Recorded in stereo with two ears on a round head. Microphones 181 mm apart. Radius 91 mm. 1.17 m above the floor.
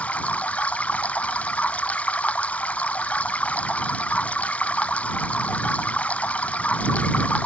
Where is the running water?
5° left (ahead or behind).